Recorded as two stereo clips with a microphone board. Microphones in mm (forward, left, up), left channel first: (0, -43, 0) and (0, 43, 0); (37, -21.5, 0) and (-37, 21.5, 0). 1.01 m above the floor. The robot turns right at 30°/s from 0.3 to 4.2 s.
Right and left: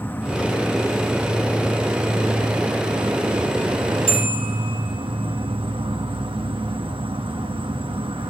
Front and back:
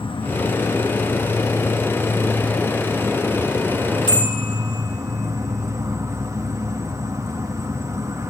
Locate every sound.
0.0 s an insect: 20° right, 0.9 m; by 8.3 s 95° left, 0.9 m
4.1 s a bell: 5° right, 5 m; by 4.4 s straight ahead, 5 m